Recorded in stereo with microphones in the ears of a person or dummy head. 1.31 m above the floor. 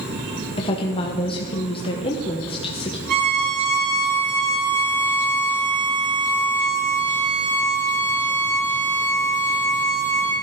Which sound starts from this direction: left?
A woman speaking, at 0.6 s.